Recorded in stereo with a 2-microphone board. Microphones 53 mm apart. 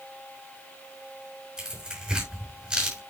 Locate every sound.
1.6 s tearing paper: 10° right (ahead or behind), 6.5 m